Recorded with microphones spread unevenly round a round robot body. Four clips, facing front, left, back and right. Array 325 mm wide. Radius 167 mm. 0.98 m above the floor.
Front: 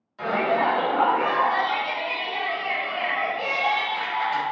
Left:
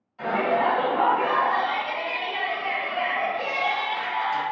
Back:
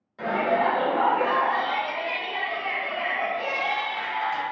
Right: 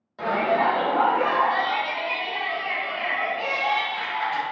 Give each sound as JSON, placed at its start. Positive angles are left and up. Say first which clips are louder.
{"t": 0.2, "sound": "a shout", "louder": "right 1 dB, front 1 dB", "azimuth_deg": -110, "distance_m": 1.3}